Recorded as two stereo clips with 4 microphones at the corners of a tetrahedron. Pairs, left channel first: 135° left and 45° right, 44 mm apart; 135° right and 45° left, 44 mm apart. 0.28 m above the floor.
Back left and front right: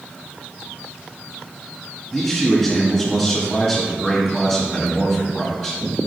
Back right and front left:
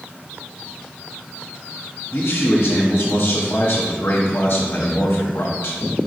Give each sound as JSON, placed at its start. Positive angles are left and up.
{"t": 2.1, "sound": "a man speaking", "azimuth_deg": -160, "distance_m": 1.4}